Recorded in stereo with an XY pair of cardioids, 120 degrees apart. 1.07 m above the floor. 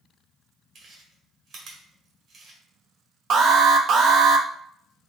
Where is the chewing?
55° right, 1.5 m.